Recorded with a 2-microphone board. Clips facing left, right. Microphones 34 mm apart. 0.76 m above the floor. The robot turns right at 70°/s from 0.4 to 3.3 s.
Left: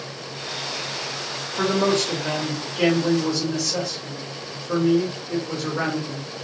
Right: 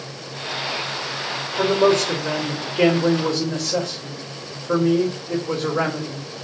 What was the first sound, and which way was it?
A man speaking, 115° left.